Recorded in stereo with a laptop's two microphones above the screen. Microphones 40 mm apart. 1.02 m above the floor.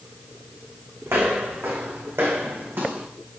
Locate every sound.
1.1 s footsteps: 75° right (ahead or behind), 4 m; by 3.1 s 60° right (ahead or behind), 4 m